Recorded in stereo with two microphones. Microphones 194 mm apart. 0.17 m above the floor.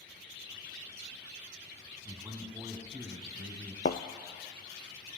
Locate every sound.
2.0 s a man speaking: 15° right (ahead or behind), 1.2 m
3.9 s a thud: 60° left (ahead or behind), 0.6 m